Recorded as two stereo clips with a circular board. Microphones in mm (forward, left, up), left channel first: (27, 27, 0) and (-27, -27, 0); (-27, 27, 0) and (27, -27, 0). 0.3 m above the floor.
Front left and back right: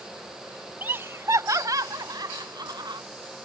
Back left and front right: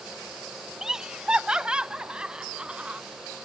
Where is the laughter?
120° right.